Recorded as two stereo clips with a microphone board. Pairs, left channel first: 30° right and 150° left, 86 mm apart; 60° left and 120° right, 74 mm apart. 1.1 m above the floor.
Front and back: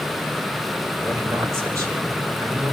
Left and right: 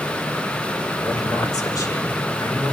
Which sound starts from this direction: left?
A man speaking, at 1.0 s.